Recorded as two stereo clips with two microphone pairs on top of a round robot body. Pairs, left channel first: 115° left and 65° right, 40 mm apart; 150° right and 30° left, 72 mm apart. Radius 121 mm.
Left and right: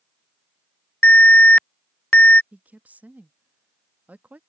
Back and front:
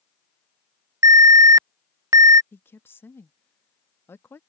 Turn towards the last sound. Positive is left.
turn(degrees=-105)